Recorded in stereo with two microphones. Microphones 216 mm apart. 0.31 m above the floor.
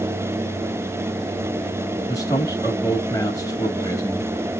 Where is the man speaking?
15° left (ahead or behind), 1.9 m.